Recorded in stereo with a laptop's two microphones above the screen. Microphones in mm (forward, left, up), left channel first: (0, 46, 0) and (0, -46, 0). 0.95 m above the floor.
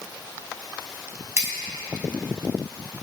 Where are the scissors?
30° right (ahead or behind), 5.5 m.